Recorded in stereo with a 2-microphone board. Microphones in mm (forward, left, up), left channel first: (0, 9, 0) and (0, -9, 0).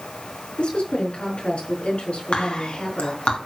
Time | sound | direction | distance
0.6 | a woman speaking | 75° left (ahead or behind) | 4 m
2.3 | whispering | 75° left (ahead or behind) | 4 m